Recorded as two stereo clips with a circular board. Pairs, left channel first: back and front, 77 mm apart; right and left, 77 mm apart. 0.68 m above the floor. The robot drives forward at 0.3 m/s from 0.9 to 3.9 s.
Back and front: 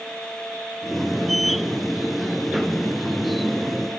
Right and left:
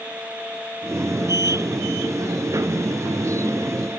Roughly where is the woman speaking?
I don't hear a woman speaking.